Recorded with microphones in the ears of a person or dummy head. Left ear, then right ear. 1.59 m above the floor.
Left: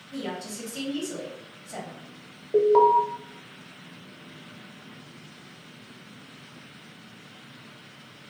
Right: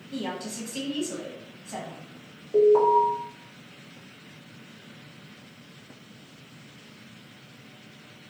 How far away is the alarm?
About 0.7 m.